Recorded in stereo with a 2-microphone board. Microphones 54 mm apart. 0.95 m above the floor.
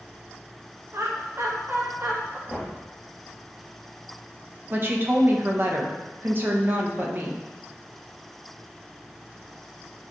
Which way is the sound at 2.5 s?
Centre (ahead or behind).